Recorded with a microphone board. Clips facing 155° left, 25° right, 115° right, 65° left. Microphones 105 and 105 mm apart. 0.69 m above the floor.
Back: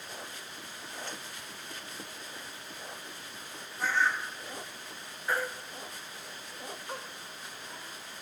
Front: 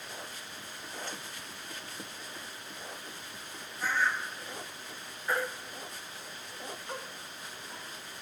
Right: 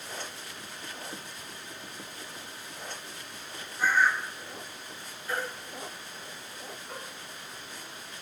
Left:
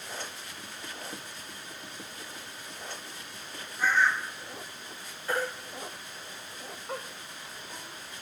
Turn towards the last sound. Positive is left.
turn(degrees=75)